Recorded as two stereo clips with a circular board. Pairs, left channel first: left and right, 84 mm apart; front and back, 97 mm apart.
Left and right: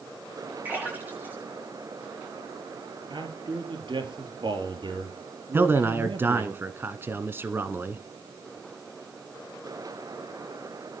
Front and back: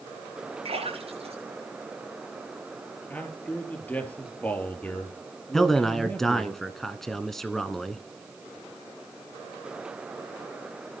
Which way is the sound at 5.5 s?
80° right.